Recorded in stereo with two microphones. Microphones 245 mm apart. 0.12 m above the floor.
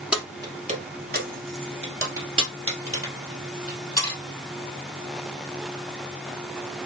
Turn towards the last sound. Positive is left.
turn(degrees=-75)  # may be behind; listen again after turning